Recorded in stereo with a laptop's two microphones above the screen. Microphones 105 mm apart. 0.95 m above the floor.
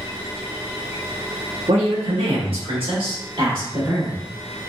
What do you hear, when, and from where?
1.7 s a woman speaking: 80° right, 1.5 m; by 4.2 s 40° right (ahead or behind), 2 m